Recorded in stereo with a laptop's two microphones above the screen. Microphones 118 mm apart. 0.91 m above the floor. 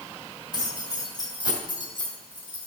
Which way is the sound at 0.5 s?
35° left (ahead or behind).